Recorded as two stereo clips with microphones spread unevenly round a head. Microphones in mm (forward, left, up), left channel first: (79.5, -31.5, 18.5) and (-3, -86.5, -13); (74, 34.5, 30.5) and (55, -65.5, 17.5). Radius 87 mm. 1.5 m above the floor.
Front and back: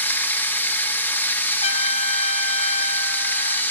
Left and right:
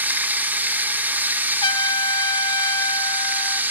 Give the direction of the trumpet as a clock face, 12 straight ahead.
11 o'clock.